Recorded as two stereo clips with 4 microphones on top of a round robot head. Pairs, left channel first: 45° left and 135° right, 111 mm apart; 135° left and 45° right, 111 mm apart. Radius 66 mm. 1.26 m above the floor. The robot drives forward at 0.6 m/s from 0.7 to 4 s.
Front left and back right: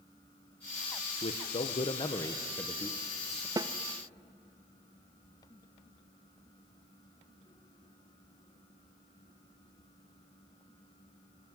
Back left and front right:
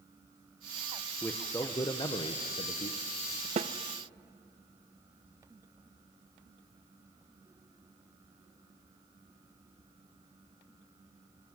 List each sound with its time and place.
1.2 s a man speaking: 60° left, 1.2 m; by 3.5 s 130° left, 1.3 m
3.6 s a snare drum: 75° right, 0.6 m; by 3.7 s 85° right, 0.6 m